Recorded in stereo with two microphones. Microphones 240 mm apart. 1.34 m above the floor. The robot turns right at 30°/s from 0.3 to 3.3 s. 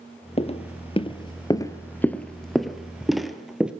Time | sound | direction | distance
0.4 | footsteps | 25° left (ahead or behind) | 1.6 m